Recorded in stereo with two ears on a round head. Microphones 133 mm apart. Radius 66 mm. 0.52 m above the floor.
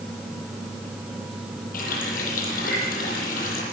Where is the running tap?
60° left (ahead or behind), 10 m.